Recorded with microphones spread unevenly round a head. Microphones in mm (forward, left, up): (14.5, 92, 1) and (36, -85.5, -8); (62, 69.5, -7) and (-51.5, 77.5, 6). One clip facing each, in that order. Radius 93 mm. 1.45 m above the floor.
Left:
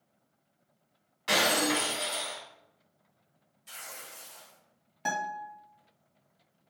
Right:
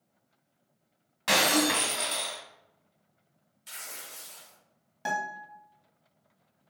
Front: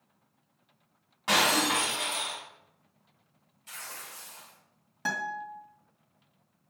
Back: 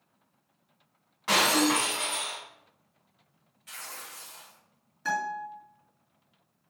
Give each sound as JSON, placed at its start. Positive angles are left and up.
{"t": 1.3, "sound": "breaking glass", "azimuth_deg": -80, "distance_m": 2.5}
{"t": 3.7, "sound": "tearing paper", "azimuth_deg": -75, "distance_m": 3.0}
{"t": 5.0, "sound": "a guitar", "azimuth_deg": 0, "distance_m": 2.5}